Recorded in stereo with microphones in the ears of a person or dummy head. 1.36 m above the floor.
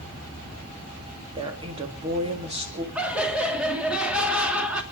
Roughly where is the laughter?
Centre.